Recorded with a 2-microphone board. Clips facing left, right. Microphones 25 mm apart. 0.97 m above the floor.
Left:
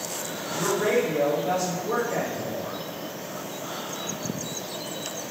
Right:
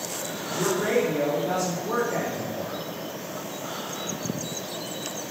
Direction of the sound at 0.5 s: 10° left (ahead or behind).